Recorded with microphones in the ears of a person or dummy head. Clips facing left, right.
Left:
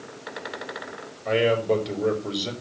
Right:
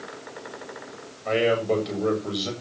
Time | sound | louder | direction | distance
1.2 | a man speaking | left 1 dB | 10° left (ahead or behind) | 7 m